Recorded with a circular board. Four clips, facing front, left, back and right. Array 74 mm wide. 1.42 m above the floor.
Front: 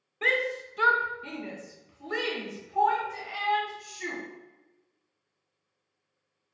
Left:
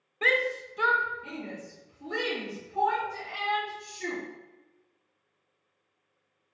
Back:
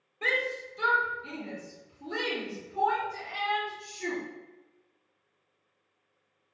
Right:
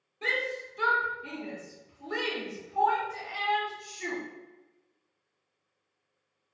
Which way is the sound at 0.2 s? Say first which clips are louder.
Left 5 dB, front 2 dB; 65° left.